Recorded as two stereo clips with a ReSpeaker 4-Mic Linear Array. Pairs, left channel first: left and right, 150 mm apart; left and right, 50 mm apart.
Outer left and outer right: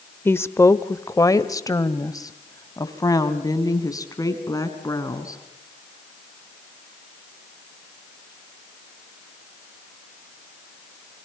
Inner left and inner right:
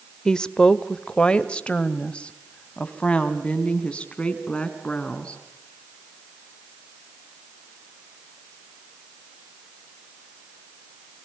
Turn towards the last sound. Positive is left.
turn(degrees=25)  # may be behind; listen again after turning